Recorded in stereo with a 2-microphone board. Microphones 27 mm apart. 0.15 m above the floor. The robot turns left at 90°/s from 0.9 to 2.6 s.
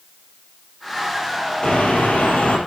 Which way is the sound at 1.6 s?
135° left.